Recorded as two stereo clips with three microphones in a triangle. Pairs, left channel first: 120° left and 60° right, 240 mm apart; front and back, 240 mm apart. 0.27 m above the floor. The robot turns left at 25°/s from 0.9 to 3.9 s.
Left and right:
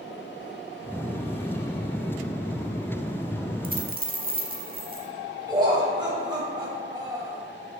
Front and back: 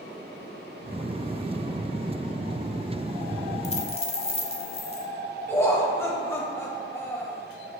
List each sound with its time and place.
3.6 s a dropped coin: 40° right, 0.7 m; by 5.1 s 50° right, 0.7 m
5.5 s laughter: 55° right, 1.2 m